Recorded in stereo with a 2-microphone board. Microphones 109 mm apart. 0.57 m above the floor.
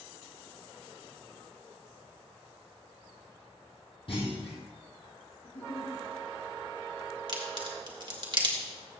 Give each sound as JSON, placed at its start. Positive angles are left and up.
{"t": 4.1, "sound": "a clunk", "side_deg": 55, "distance_m": 3.0}
{"t": 5.4, "sound": "a giggle", "side_deg": 80, "distance_m": 3.0}
{"t": 7.3, "sound": "a crack", "side_deg": -50, "distance_m": 1.7}